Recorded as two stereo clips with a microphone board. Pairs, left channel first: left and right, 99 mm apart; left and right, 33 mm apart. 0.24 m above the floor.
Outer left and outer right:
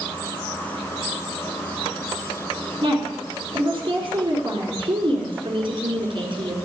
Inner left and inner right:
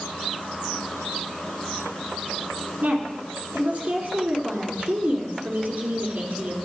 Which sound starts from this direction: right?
A woman speaking, at 2.8 s.